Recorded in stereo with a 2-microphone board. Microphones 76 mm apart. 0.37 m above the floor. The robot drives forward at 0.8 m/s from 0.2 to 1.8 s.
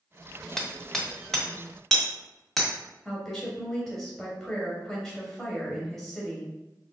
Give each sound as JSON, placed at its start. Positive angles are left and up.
{"t": 0.6, "sound": "hammering", "side_deg": 5, "distance_m": 0.8}
{"t": 3.0, "sound": "a woman speaking", "side_deg": 5, "distance_m": 2.0}